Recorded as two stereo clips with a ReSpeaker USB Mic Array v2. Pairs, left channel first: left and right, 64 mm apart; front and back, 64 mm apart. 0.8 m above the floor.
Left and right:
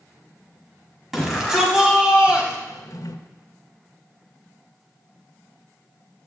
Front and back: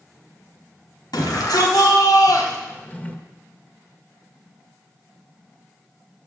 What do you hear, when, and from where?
1.1 s a shout: 5° right, 5 m; by 2.6 s 20° right, 4.5 m
2.7 s a drawer: 65° left, 1.4 m